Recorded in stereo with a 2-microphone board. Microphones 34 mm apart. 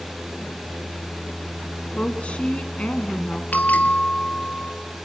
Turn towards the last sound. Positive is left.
turn(degrees=55)  # may be behind; listen again after turning